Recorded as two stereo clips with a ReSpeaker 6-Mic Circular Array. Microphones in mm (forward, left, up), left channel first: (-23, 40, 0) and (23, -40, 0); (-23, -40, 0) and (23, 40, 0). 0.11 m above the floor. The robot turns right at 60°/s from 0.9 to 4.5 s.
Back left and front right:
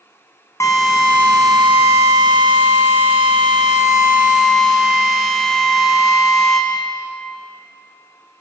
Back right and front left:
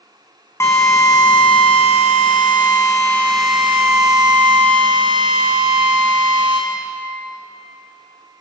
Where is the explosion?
No explosion in this recording.